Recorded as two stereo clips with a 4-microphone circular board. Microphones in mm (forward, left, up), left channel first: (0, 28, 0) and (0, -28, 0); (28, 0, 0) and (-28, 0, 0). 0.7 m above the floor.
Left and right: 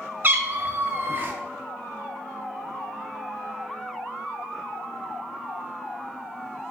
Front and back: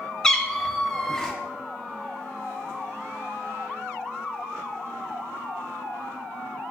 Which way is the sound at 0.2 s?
75° right.